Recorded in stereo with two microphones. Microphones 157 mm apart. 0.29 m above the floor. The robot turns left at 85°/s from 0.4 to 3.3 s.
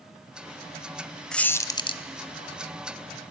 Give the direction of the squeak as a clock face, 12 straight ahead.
6 o'clock.